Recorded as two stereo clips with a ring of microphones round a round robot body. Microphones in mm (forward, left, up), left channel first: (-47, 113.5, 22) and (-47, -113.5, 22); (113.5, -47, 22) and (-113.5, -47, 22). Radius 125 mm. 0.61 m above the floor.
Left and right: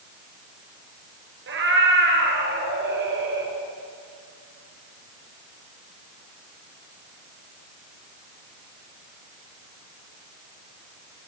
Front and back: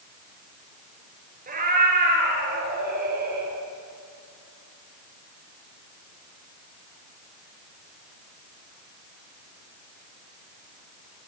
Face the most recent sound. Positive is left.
turn(degrees=-130)